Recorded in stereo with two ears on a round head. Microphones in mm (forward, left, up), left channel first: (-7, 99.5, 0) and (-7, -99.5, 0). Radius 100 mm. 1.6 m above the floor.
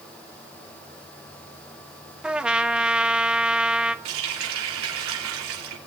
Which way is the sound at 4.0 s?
70° right (ahead or behind).